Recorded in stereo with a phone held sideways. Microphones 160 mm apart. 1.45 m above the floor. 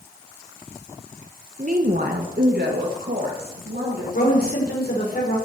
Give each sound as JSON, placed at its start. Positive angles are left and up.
{"t": 1.6, "sound": "a woman speaking", "side_deg": -55, "distance_m": 1.1}
{"t": 4.1, "sound": "a woman speaking", "side_deg": 70, "distance_m": 5.0}